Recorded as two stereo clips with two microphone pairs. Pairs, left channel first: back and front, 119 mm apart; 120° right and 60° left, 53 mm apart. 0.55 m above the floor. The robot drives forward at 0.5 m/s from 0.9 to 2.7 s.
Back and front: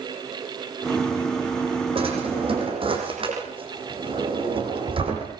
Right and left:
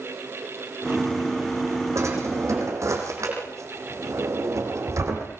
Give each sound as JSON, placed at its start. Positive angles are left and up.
{"t": 1.9, "sound": "a drawer", "azimuth_deg": 40, "distance_m": 9.5}